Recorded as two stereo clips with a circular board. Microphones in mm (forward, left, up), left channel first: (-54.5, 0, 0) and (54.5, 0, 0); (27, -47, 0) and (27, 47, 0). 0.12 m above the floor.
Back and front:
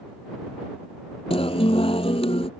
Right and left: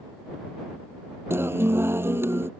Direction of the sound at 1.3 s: 155° left.